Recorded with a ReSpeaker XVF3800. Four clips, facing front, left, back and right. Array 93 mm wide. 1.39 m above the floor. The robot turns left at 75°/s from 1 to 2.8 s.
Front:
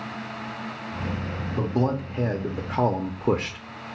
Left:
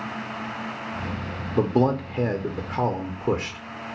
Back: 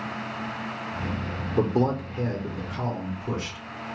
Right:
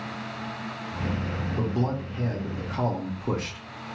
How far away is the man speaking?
About 0.6 m.